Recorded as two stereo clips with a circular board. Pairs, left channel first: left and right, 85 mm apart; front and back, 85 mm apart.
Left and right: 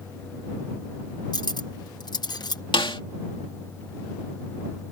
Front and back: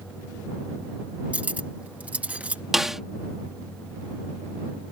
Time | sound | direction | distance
1.3 | cutlery clinking | 110° left | ?
2.7 | a snare drum | 95° left | ?